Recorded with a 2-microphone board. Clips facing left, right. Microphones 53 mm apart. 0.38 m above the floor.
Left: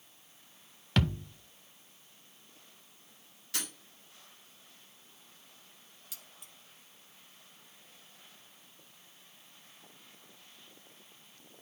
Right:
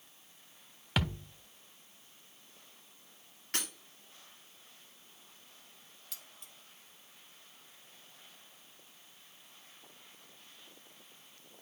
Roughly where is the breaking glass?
Right.